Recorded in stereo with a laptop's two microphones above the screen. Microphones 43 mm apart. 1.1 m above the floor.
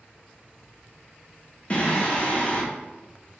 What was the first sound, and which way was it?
Singing, 30° left (ahead or behind).